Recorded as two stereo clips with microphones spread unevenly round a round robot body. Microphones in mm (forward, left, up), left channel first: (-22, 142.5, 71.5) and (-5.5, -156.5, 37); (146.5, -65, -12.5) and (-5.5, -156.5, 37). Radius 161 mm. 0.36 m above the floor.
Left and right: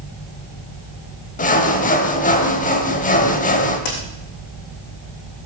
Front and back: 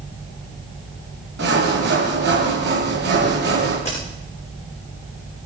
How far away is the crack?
About 6 m.